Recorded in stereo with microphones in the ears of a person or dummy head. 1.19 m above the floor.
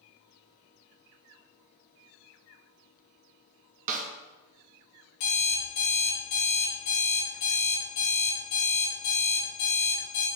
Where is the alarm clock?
70° left (ahead or behind), 1.8 m.